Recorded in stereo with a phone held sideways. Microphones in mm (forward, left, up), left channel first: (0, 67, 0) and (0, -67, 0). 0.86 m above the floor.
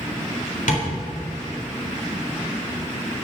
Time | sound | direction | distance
0.7 | tapping | 70° left (ahead or behind) | 3.5 m